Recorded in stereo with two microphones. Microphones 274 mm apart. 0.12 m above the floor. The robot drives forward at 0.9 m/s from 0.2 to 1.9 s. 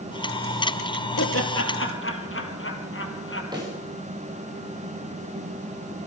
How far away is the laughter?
About 2.5 m.